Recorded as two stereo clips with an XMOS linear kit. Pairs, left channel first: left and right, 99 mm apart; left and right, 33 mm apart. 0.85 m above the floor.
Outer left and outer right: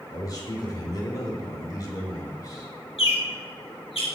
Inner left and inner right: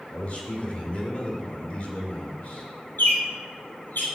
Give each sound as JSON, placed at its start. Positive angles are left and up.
{"t": 0.1, "sound": "a man speaking", "side_deg": 40, "distance_m": 3.0}
{"t": 3.0, "sound": "a bird", "side_deg": 75, "distance_m": 2.5}